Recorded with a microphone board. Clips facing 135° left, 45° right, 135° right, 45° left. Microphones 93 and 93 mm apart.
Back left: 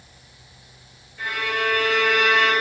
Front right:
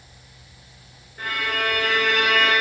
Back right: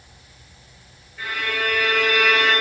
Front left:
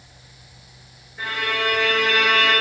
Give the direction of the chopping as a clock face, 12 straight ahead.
I don't hear chopping.